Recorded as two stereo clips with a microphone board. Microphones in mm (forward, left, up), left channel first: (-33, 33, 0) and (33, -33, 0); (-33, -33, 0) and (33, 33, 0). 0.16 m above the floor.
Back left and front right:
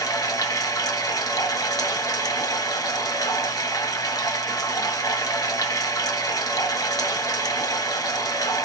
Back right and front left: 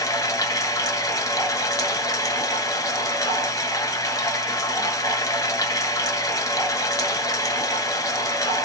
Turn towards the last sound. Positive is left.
turn(degrees=180)